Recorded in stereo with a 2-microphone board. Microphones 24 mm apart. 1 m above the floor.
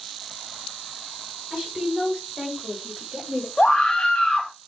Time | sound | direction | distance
1.5 | a woman speaking | 35° right (ahead or behind) | 4 m
3.6 | a scream | 30° left (ahead or behind) | 1.6 m